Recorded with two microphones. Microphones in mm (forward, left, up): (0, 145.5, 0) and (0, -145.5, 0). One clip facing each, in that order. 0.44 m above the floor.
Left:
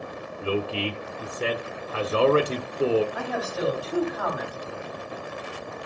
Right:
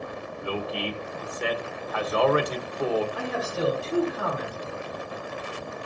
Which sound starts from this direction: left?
A man speaking, at 0.4 s.